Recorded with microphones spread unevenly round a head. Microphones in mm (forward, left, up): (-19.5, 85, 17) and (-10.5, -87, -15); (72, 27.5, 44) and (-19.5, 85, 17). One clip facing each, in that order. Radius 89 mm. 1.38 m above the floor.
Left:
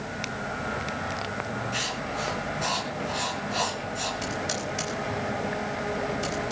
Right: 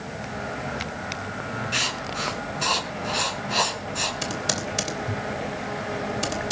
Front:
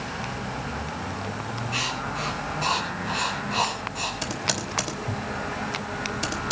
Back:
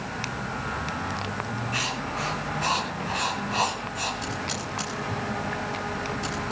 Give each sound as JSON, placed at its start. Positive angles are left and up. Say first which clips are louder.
{"t": 1.7, "sound": "writing", "louder": "even, front 1 dB", "azimuth_deg": -100, "distance_m": 4.5}
{"t": 4.2, "sound": "typing on a keyboard", "louder": "right 3 dB, front 1 dB", "azimuth_deg": -55, "distance_m": 3.0}